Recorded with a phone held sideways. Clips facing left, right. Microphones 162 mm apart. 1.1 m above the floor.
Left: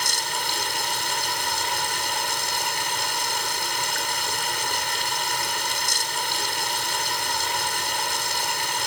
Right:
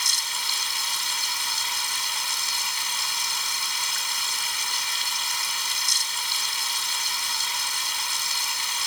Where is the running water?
65° left (ahead or behind).